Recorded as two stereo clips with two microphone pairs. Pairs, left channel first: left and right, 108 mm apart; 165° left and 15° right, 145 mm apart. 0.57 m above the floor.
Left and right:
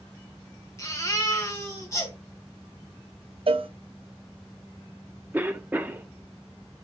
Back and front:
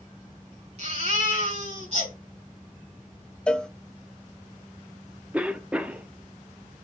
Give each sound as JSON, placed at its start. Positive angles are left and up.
{"t": 0.8, "sound": "a baby crying", "azimuth_deg": 30, "distance_m": 3.0}
{"t": 3.5, "sound": "a cowbell", "azimuth_deg": -110, "distance_m": 0.5}
{"t": 5.3, "sound": "a cough", "azimuth_deg": -80, "distance_m": 0.6}